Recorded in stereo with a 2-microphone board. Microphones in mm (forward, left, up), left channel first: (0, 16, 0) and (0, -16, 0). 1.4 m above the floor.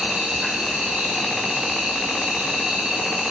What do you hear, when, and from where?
0.0 s an insect: 35° right (ahead or behind), 5 m